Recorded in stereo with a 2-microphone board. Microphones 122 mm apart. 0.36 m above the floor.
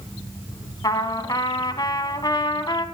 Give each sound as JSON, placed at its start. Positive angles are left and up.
{"t": 0.8, "sound": "a trumpet", "side_deg": 35, "distance_m": 1.1}